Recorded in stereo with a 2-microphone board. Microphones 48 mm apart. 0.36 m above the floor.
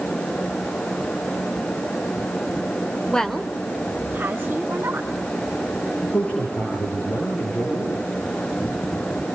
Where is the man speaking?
35° left (ahead or behind), 5.5 m.